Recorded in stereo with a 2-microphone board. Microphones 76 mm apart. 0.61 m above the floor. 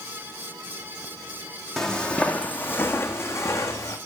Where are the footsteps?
5° left (ahead or behind), 1.2 m; by 4.0 s 50° left (ahead or behind), 1.7 m.